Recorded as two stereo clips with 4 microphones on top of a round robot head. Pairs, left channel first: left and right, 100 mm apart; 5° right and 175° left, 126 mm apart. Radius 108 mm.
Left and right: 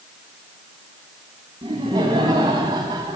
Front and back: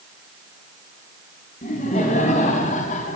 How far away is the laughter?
About 4 m.